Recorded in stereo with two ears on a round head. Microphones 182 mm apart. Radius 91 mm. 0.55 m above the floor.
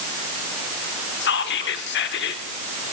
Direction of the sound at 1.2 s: 55° left (ahead or behind).